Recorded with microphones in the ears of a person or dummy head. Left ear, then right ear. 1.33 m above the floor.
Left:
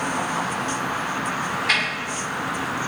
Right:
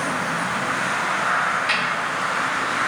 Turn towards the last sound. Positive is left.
turn(degrees=-30)  # may be behind; listen again after turning